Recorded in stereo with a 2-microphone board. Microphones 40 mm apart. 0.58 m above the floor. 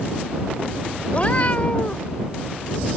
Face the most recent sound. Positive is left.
turn(degrees=35)  # may be behind; listen again after turning